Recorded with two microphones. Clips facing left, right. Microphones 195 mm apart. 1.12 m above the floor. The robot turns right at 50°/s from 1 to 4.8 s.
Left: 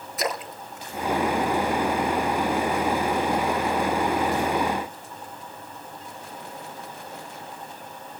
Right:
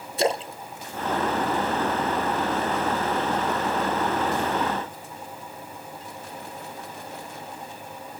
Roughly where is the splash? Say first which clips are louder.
Right 5 dB; right.